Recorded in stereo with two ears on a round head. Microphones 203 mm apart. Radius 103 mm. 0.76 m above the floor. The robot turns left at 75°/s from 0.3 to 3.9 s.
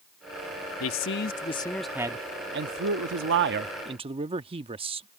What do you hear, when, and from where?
0.8 s a man speaking: 80° left; by 5.1 s 155° right